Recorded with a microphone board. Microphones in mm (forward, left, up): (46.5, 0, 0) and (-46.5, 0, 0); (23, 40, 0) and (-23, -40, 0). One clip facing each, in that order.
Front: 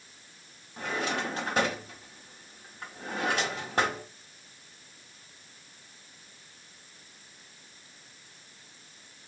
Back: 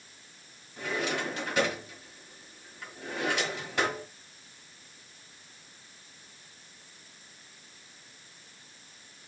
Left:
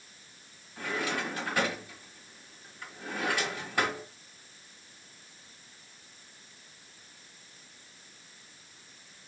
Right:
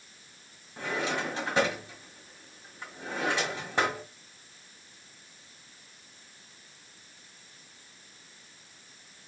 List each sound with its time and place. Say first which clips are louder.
0.8 s a drawer: even, right 2 dB; 55° right, 1.6 m